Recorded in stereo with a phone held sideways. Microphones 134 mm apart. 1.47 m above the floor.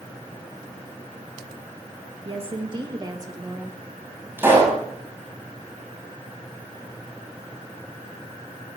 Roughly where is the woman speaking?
Right.